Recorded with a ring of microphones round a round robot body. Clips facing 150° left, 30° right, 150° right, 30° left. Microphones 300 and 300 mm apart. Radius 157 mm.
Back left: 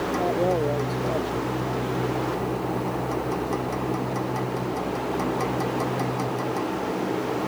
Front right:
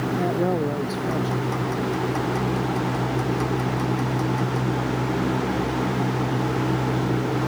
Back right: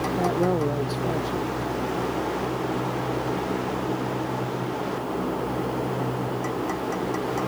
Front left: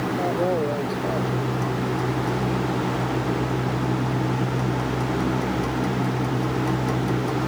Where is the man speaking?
90° right.